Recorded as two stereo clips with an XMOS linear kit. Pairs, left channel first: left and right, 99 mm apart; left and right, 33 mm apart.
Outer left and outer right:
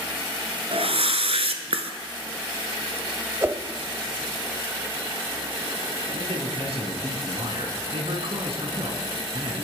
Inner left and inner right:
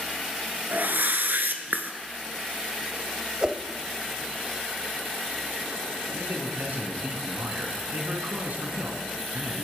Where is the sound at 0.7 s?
80° right, 1.1 m.